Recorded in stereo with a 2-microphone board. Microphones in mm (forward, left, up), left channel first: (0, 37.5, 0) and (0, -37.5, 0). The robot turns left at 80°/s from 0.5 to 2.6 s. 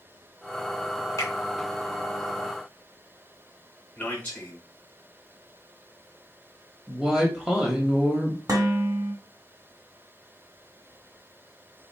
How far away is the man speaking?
About 1.0 m.